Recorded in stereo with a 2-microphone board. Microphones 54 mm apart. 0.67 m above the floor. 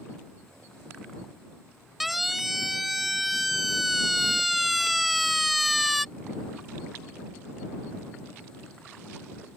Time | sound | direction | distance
2.0 | a siren | centre (ahead or behind) | ?